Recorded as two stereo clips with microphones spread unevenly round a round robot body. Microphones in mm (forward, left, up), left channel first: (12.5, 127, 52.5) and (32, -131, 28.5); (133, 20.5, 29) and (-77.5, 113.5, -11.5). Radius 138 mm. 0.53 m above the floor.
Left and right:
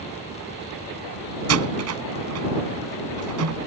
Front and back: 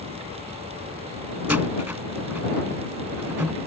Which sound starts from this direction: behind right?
A door slam, at 1.5 s.